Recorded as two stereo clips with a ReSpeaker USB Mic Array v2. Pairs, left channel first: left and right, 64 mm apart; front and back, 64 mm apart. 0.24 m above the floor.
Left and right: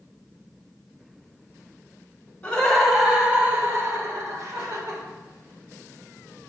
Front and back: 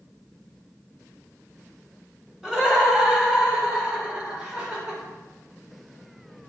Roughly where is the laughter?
Behind left.